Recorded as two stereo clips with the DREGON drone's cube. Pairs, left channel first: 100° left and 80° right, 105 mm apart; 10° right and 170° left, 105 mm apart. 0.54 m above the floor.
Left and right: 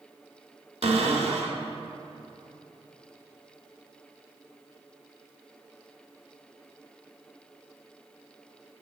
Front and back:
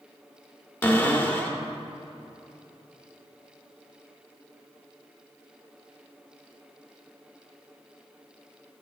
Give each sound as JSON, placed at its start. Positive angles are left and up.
{"t": 0.8, "sound": "a cupboard door", "azimuth_deg": -85, "distance_m": 0.6}